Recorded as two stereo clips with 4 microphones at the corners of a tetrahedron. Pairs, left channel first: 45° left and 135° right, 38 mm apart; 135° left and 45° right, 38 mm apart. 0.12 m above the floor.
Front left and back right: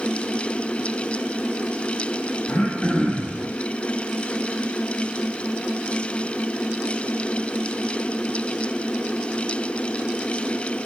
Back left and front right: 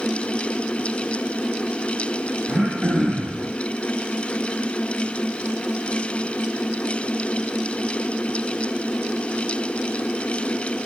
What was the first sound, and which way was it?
Throat clearing, 25° left.